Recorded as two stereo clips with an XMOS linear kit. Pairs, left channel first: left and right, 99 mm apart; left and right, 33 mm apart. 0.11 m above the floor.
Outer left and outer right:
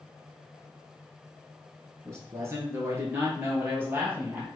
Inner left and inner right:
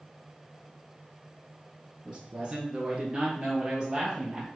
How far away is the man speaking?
About 1.3 m.